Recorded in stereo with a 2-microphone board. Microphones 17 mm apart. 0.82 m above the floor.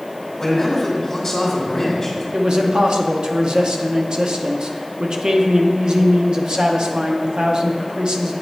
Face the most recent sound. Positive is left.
turn(degrees=-55)  # may be behind; listen again after turning